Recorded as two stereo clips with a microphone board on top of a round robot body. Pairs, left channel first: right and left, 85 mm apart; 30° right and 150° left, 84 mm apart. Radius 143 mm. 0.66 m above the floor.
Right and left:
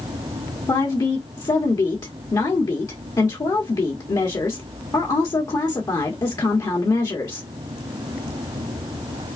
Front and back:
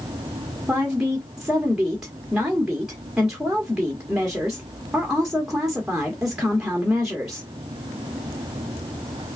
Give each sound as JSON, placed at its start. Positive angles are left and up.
{"t": 0.7, "sound": "a woman speaking", "azimuth_deg": -125, "distance_m": 1.4}